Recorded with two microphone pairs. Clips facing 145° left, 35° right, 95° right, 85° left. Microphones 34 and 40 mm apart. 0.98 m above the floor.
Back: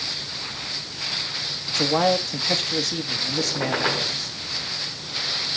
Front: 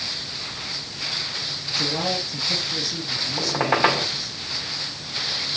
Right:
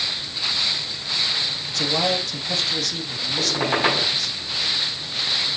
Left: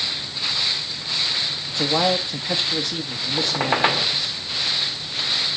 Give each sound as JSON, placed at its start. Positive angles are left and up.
{"t": 1.7, "sound": "a man speaking", "azimuth_deg": 145, "distance_m": 2.0}
{"t": 3.4, "sound": "a squeak", "azimuth_deg": 15, "distance_m": 4.5}